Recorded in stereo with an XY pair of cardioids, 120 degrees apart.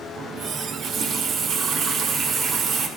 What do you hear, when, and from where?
0.2 s a running tap: 60° right, 2 m